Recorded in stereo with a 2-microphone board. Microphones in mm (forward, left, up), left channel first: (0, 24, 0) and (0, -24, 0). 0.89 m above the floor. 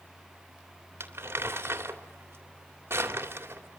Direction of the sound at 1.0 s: 50° right (ahead or behind).